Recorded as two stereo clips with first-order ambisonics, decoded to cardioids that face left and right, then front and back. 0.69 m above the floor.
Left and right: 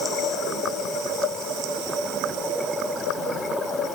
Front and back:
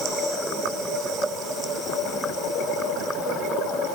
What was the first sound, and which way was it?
Only background noise.